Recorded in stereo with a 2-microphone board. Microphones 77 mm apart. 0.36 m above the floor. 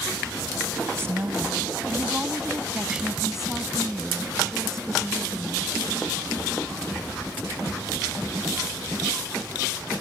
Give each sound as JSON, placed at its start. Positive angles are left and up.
{"t": 0.9, "sound": "a woman speaking", "side_deg": -35}